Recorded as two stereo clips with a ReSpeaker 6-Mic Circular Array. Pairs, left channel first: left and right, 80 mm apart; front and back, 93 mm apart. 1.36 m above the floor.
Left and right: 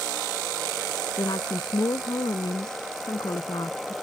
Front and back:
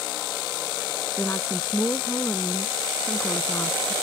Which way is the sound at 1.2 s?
60° left.